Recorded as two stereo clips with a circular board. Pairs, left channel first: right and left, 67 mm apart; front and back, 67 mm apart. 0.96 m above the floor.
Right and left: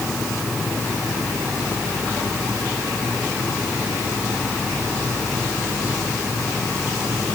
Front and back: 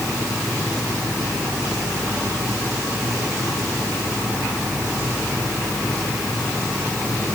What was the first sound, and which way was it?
Only background noise.